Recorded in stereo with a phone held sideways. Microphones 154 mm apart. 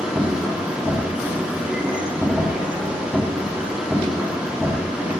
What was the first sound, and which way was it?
A machine running, 5° right (ahead or behind).